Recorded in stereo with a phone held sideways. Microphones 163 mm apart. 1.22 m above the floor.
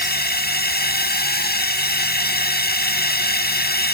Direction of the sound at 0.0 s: 80° left.